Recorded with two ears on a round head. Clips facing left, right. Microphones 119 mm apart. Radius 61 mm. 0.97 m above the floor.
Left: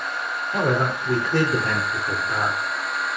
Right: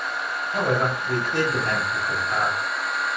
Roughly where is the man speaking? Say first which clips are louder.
Left 1 dB; left.